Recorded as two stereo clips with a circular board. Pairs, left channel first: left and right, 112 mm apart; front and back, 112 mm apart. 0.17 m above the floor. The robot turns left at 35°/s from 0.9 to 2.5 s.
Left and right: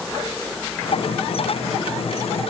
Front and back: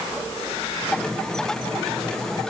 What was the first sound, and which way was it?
Only background noise.